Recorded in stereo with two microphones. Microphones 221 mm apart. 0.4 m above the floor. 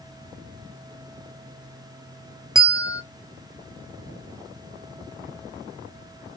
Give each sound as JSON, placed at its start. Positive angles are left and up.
{"t": 2.5, "sound": "a bell", "side_deg": 15, "distance_m": 1.0}